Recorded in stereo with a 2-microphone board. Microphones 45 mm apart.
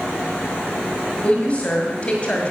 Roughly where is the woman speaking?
Left.